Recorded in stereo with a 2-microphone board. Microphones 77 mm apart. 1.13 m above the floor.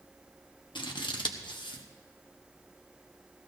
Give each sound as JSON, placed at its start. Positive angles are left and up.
{"t": 0.8, "sound": "scissors", "side_deg": 80, "distance_m": 1.0}